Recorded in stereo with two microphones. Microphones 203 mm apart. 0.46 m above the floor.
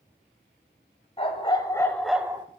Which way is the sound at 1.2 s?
30° left (ahead or behind).